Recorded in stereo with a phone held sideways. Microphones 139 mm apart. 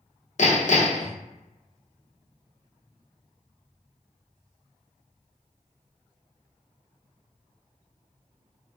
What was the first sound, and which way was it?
Hammering, 60° left (ahead or behind).